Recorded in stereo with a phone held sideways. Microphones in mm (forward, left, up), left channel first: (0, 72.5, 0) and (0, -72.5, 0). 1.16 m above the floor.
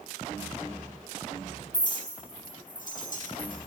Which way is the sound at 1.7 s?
65° left (ahead or behind).